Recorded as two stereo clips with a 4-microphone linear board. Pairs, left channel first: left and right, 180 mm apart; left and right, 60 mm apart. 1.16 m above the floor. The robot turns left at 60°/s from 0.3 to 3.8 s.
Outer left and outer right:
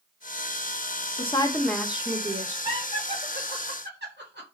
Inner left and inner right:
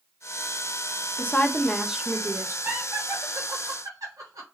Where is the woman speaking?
35° left, 1.0 m; by 2.5 s 45° right, 1.0 m.